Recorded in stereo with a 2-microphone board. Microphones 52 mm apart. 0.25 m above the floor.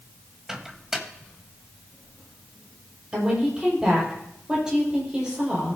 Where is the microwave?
10° right (ahead or behind), 1.4 m.